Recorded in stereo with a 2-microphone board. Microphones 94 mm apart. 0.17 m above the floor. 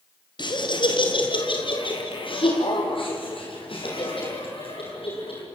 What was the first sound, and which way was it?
Laughter, 55° left (ahead or behind).